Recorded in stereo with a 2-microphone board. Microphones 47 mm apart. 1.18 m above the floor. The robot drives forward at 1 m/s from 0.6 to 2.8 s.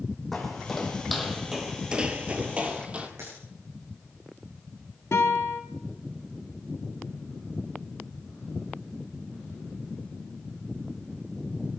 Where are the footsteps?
5° left (ahead or behind), 3 m; by 3.1 s 25° right (ahead or behind), 2.0 m.